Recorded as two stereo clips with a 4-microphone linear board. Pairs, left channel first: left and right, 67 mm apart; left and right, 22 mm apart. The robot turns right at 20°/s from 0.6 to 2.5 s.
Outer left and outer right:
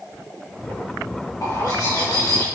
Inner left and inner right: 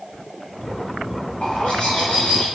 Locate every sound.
1.4 s a bird: 65° left (ahead or behind), 3 m; by 2.5 s 80° left, 3 m